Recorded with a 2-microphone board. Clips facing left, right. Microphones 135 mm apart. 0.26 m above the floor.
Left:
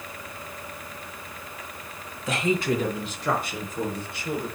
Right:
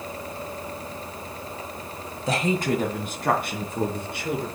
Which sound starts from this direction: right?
A woman speaking, at 2.3 s.